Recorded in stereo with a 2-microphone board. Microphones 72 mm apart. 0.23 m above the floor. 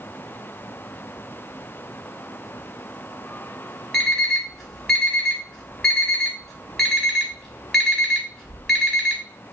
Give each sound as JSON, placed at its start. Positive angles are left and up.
{"t": 3.9, "sound": "an alarm clock", "side_deg": 5, "distance_m": 0.9}